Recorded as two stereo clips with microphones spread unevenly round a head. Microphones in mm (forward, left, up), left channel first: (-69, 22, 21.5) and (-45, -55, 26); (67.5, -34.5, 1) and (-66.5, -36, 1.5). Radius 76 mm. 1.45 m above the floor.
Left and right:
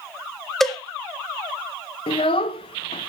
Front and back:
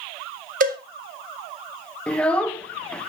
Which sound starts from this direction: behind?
A cowbell, at 0.6 s.